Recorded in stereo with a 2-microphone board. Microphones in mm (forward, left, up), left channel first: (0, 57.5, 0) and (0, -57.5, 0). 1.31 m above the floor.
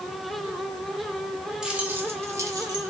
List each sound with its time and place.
1.6 s keys jangling: 10° right (ahead or behind), 1.7 m; by 2.9 s 40° right (ahead or behind), 2 m